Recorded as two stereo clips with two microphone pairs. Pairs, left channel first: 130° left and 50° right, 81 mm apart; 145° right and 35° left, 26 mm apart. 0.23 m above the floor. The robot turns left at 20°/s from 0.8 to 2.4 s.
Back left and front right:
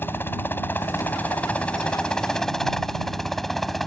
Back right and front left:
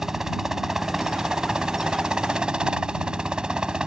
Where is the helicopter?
90° left; by 3.9 s 45° left.